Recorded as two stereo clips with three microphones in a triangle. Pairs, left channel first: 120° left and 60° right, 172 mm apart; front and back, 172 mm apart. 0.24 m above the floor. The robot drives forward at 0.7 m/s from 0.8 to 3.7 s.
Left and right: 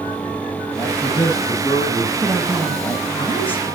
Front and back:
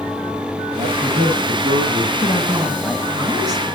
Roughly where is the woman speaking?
Ahead left.